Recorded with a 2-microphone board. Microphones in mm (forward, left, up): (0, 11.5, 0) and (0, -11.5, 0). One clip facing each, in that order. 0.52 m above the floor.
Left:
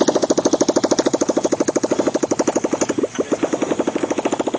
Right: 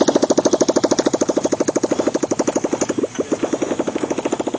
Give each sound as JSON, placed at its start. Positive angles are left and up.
{"t": 0.0, "sound": "a motorcycle", "side_deg": -10}